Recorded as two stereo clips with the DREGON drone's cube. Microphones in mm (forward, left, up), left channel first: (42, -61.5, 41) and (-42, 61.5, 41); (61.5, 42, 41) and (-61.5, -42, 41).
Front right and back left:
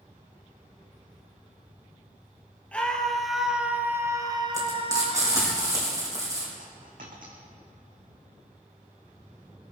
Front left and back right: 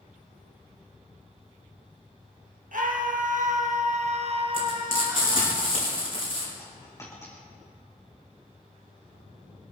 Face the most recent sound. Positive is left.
turn(degrees=105)